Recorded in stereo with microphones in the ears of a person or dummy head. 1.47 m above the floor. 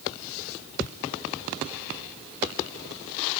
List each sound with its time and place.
Only background noise.